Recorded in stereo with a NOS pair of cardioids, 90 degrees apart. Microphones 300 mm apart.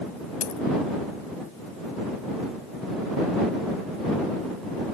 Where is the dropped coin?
65° left.